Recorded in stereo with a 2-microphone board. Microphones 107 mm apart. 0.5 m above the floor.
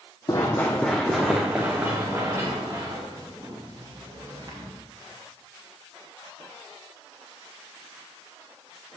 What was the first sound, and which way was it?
Running footsteps, 35° left (ahead or behind).